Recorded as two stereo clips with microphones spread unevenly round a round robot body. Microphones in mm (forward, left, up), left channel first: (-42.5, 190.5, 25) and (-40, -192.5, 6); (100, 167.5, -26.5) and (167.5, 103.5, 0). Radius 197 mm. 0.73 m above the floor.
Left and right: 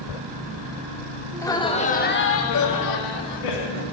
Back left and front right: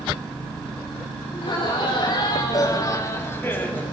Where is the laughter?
175° left, 2.5 m; by 3.9 s 70° left, 2.5 m.